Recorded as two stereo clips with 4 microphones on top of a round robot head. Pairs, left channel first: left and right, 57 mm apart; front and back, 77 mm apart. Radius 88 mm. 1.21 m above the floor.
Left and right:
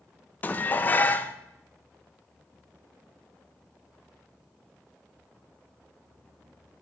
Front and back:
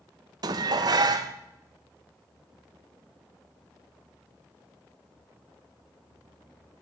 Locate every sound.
0.4 s dishes clattering: 145° left, 0.5 m